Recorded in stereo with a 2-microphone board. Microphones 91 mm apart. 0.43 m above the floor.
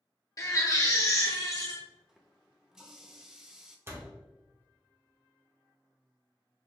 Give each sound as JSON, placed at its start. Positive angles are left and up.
{"t": 0.4, "sound": "a baby crying", "side_deg": 40, "distance_m": 1.1}
{"t": 2.1, "sound": "a running tap", "side_deg": -5, "distance_m": 0.7}
{"t": 3.9, "sound": "a door slam", "side_deg": -25, "distance_m": 1.0}